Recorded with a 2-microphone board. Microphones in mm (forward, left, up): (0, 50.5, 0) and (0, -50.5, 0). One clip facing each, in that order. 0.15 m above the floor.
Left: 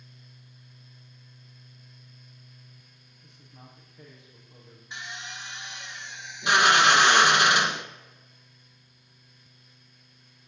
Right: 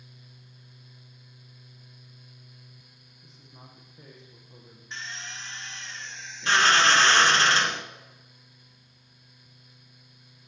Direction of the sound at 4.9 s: 15° left (ahead or behind).